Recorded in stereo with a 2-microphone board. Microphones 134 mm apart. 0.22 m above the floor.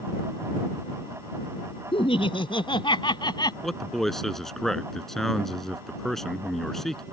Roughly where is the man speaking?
Centre.